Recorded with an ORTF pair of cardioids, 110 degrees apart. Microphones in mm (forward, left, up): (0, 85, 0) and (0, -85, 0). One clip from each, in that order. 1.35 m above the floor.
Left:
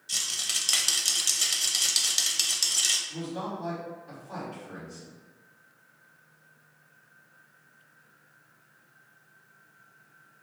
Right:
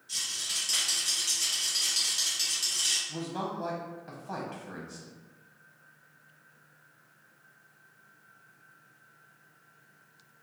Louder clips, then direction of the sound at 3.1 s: Even; 55° right.